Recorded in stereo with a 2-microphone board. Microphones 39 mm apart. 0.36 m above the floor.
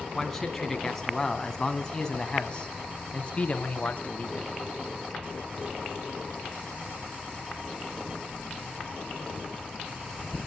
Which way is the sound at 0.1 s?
5° left (ahead or behind).